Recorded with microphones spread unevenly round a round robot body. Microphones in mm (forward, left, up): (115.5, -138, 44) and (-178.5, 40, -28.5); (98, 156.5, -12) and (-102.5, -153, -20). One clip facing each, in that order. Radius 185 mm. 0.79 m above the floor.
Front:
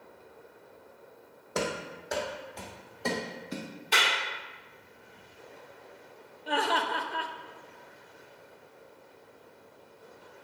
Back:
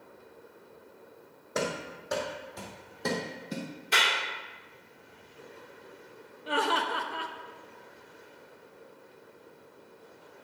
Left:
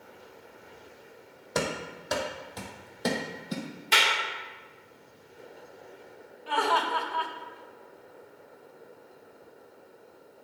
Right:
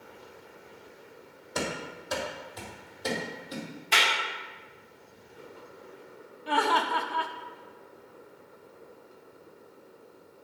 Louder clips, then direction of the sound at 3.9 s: Front 1 dB, left 1 dB; 65° left.